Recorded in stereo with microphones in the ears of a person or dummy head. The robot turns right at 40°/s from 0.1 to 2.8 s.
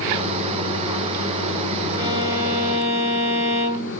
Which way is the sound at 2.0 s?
35° left.